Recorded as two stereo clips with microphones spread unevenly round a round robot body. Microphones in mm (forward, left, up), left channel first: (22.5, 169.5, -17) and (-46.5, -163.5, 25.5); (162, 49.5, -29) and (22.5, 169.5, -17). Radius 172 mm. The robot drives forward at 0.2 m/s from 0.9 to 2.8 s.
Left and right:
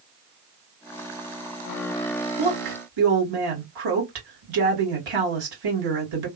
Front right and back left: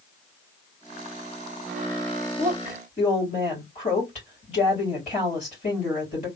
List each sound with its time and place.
2.4 s a woman speaking: 100° right, 2.5 m